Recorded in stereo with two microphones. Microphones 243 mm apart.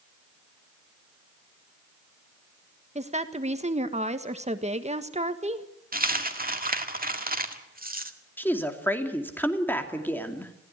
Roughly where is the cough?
I don't hear a cough.